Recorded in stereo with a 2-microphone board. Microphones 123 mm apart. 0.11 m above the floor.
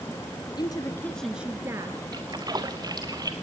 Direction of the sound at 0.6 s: 35° left (ahead or behind).